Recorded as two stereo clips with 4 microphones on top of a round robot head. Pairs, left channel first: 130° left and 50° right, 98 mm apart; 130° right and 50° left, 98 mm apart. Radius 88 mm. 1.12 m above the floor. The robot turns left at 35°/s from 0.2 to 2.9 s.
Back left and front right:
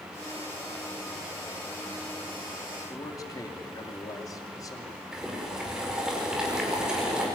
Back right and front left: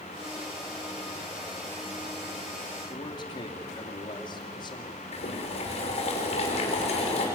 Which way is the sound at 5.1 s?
135° right.